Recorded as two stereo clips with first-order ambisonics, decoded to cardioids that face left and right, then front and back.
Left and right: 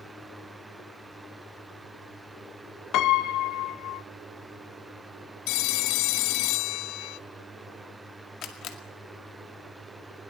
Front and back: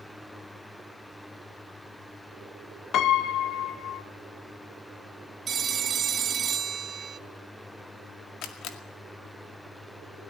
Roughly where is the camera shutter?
Ahead left.